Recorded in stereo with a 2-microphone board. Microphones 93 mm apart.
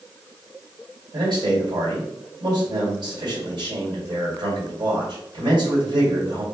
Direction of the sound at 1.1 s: 65° right (ahead or behind).